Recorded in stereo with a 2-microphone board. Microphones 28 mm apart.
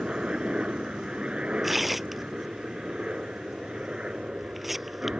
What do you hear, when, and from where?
0.0 s a helicopter: 35° right (ahead or behind)
1.6 s tearing paper: 5° right (ahead or behind)